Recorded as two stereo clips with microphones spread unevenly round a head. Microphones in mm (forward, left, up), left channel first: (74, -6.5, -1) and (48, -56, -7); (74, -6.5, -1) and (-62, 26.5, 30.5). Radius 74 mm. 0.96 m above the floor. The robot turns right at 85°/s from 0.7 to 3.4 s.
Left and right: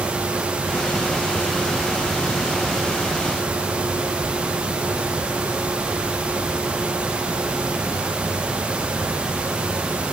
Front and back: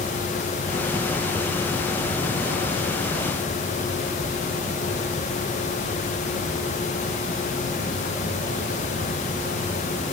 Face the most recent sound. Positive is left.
No sound to turn to.